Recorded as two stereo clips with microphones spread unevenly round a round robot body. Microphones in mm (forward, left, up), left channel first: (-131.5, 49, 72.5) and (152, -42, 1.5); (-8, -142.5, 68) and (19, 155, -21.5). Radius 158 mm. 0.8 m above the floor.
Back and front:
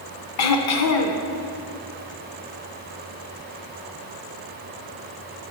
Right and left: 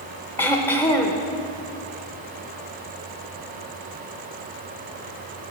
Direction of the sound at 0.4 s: 170° right.